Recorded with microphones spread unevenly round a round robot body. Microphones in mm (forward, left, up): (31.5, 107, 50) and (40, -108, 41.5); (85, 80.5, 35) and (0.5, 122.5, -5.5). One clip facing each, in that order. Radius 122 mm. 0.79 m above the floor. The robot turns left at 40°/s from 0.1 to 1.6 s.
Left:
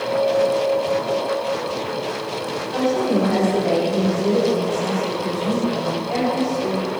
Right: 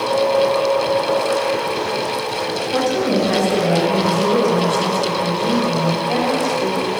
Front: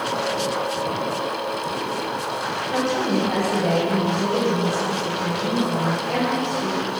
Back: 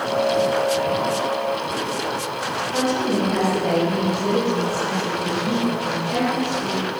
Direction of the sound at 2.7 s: 80° right.